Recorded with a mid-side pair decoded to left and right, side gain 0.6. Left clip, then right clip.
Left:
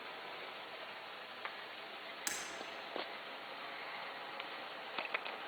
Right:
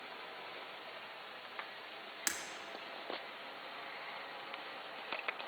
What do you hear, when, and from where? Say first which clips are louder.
2.3 s breaking glass: right 3 dB; 30° right, 1.5 m